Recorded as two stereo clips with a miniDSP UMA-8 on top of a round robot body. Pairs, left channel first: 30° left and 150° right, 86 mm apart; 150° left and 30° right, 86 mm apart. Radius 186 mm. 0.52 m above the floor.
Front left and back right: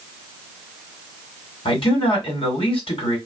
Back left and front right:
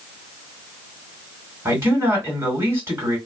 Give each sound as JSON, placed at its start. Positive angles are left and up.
{"t": 1.6, "sound": "a man speaking", "azimuth_deg": 30, "distance_m": 2.5}